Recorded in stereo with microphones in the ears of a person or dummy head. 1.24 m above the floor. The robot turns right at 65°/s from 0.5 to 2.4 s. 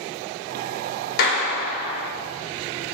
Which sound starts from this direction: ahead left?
A clap, at 1.2 s.